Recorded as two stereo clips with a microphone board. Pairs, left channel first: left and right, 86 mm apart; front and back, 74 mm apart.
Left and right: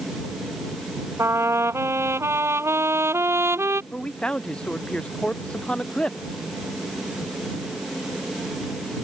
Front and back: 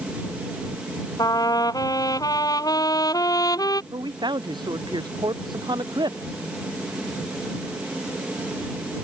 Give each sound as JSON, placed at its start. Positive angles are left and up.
{"t": 1.2, "sound": "a trumpet", "azimuth_deg": -30}
{"t": 3.9, "sound": "a man speaking", "azimuth_deg": 170}